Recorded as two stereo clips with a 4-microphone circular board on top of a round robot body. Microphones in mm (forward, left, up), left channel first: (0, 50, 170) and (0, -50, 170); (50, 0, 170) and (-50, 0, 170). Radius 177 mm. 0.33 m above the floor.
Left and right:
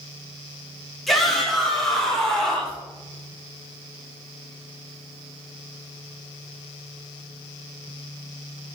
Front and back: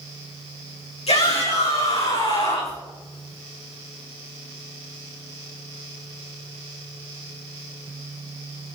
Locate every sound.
1.1 s a shout: straight ahead, 6 m; by 2.8 s 10° left, 6.5 m